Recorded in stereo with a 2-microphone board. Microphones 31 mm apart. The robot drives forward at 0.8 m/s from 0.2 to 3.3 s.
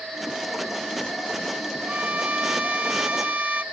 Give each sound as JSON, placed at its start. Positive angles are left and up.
{"t": 1.9, "sound": "a violin", "side_deg": -55}